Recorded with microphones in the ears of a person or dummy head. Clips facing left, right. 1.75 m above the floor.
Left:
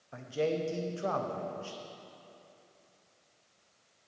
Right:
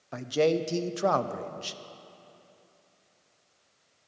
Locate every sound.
0.1 s a man speaking: 70° right (ahead or behind), 0.5 m